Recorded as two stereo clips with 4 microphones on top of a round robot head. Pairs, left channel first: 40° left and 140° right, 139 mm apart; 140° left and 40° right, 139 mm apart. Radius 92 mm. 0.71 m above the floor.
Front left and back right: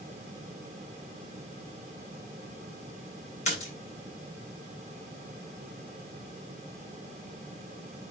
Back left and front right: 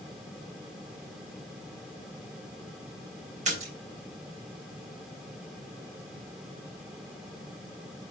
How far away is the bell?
No bell in this recording.